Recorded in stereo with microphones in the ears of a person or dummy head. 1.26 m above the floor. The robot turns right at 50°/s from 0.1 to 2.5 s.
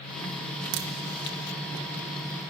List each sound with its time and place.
0.7 s a crack: 45° right (ahead or behind), 0.8 m; by 0.9 s 50° right (ahead or behind), 0.8 m